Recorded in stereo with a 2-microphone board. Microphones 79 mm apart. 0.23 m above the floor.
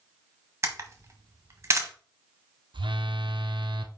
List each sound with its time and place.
0.6 s a camera shutter: 35° right (ahead or behind), 1.3 m
2.7 s a phone buzzing: 85° right, 0.7 m